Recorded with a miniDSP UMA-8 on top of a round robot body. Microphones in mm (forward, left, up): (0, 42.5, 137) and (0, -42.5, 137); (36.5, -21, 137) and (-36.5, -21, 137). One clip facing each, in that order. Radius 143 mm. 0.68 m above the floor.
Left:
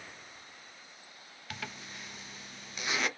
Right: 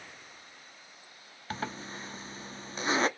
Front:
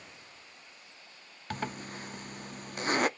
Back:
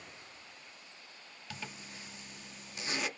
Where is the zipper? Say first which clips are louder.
Right 7 dB, front 10 dB; 35° right, 0.5 m.